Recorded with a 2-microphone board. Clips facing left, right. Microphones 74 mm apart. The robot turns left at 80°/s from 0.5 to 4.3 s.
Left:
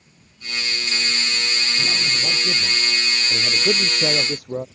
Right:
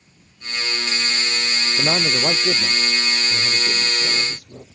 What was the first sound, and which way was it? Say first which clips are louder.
A man speaking: right 5 dB; 85° right.